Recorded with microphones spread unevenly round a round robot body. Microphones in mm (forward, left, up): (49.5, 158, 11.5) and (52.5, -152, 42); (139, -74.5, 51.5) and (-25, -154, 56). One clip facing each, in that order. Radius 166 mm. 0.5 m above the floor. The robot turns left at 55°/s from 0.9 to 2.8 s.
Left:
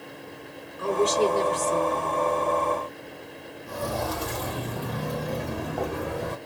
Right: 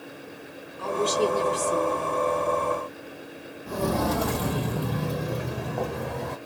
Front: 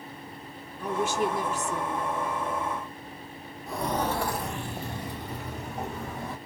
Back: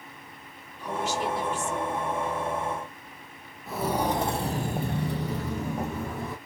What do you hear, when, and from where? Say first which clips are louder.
0.8 s a woman speaking: left 2 dB, front 3 dB; 25° left, 1.7 m; by 2.1 s 40° right, 1.7 m
3.7 s footsteps: right 5 dB, back 2 dB; 65° right, 1.2 m; by 6.4 s 170° left, 1.7 m